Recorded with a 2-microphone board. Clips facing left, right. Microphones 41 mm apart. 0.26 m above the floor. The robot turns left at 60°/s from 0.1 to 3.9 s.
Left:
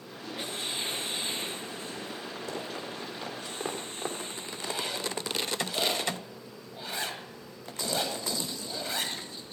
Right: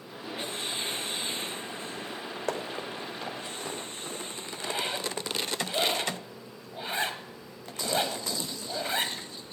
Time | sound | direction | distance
2.5 | running footsteps | 60° right (ahead or behind) | 3 m
4.5 | a zipper | 30° right (ahead or behind) | 1.1 m